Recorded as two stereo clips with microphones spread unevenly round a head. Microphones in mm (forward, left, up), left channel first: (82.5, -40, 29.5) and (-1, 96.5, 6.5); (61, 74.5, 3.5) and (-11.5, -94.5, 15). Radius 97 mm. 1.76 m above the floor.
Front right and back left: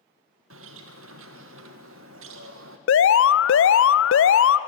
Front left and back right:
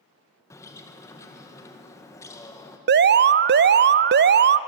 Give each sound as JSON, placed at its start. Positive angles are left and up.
{"t": 0.5, "sound": "a bird", "azimuth_deg": 145, "distance_m": 1.8}
{"t": 2.9, "sound": "an alarm", "azimuth_deg": -75, "distance_m": 0.7}